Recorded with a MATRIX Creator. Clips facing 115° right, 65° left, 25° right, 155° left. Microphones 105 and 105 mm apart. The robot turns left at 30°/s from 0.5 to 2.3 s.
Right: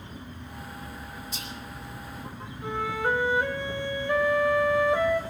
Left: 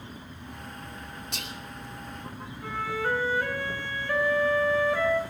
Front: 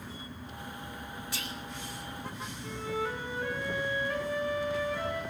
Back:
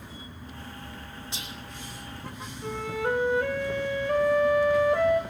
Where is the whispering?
90° left, 2.5 m; by 1.6 s 80° left, 2.5 m.